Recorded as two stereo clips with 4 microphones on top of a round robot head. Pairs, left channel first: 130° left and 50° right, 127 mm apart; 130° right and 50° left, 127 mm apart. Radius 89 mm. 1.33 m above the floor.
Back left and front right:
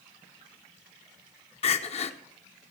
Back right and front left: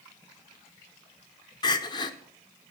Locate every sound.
1.6 s crying: 170° left, 0.8 m